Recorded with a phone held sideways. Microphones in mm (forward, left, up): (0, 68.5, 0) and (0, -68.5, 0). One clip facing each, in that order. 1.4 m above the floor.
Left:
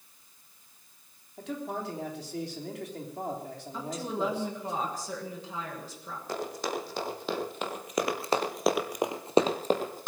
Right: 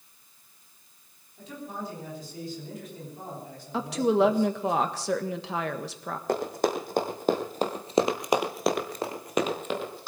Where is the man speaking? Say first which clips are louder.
Left 3 dB; 75° left (ahead or behind), 3.5 m.